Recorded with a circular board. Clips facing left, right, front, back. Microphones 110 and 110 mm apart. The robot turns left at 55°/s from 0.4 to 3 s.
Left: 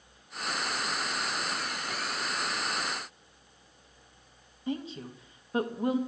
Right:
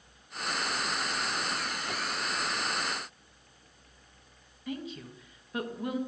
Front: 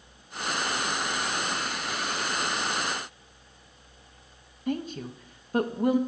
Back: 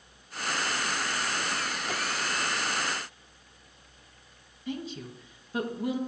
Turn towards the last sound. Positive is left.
turn(degrees=35)